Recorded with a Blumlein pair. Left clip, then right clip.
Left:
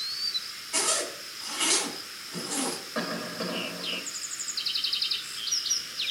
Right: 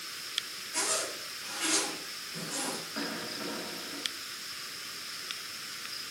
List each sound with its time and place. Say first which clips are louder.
0.7 s a zipper: left 4 dB; 60° left, 3.5 m
3.0 s a cough: left 4 dB; 50° left, 1.3 m